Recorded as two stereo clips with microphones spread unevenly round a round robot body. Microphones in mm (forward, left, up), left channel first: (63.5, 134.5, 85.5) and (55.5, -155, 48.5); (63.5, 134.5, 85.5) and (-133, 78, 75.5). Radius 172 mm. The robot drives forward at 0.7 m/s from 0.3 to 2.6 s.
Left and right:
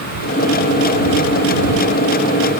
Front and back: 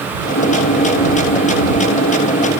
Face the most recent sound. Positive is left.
No sound to turn to.